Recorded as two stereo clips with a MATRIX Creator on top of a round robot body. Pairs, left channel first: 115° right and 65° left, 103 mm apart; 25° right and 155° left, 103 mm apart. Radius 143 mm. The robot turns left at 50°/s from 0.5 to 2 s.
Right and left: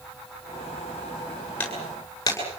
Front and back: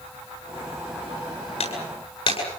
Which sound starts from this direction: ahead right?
Breaking glass, at 1.6 s.